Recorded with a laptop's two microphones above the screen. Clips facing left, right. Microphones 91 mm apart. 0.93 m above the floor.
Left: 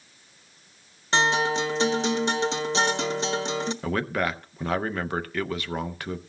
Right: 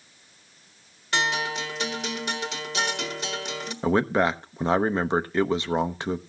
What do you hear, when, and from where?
1.1 s a guitar: 30° left (ahead or behind), 1.4 m
3.8 s a man speaking: 25° right (ahead or behind), 0.7 m